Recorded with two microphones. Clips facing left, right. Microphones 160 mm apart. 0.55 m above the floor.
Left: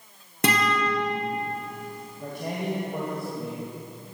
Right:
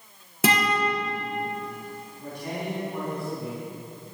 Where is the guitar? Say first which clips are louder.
Right 1 dB; centre (ahead or behind), 2.5 m.